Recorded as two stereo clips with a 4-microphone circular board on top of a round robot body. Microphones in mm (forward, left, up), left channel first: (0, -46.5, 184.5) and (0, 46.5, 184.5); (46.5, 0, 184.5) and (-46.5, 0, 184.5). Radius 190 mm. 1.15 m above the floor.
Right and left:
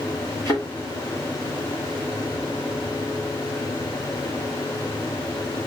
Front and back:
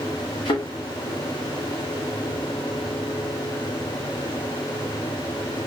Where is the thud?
35° right, 1.8 m.